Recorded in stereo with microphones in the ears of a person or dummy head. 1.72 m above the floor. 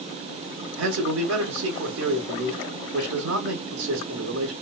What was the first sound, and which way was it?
A man speaking, 70° right (ahead or behind).